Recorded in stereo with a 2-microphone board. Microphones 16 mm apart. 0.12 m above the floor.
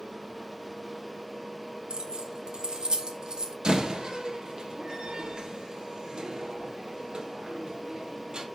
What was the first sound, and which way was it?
Keys jangling, 75° right (ahead or behind).